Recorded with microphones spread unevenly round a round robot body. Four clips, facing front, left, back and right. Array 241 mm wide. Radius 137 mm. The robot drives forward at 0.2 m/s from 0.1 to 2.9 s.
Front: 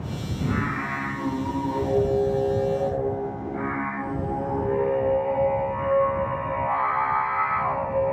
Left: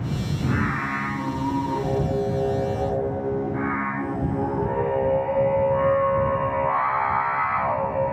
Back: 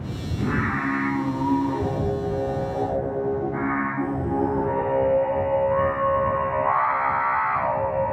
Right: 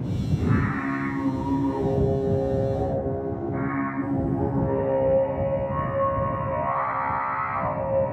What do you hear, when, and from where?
0.4 s singing: 160° right, 6 m